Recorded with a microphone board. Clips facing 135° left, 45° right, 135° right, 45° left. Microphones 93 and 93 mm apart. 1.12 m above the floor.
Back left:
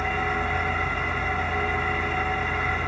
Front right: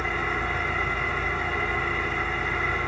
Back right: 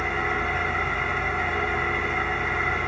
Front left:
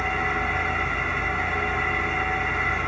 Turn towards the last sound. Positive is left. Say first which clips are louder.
# back left 2 dB, front left 1 dB
turn(degrees=155)